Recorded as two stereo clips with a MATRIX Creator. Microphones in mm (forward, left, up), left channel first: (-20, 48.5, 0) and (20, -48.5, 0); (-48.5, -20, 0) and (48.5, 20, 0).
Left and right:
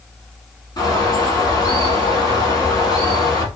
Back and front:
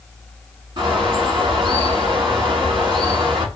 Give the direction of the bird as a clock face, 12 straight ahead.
10 o'clock.